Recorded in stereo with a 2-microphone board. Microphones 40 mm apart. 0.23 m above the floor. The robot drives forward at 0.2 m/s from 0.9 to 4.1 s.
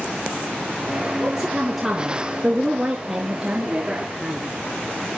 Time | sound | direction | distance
1.2 | a woman speaking | 5° right (ahead or behind) | 3.5 m